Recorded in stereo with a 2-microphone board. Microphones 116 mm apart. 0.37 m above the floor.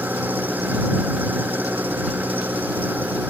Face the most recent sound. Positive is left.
turn(degrees=-15)  # may be behind; listen again after turning